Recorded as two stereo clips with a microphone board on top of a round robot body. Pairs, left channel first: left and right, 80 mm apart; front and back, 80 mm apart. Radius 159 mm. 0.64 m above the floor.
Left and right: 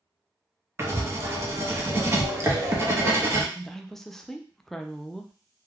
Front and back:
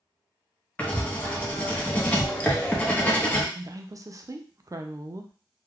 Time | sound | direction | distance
0.8 | writing | 60° right | 1.0 m
3.5 | a woman speaking | 175° left | 0.6 m